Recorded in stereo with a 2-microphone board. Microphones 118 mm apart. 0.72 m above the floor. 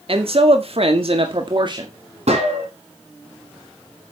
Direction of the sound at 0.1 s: 55° right (ahead or behind).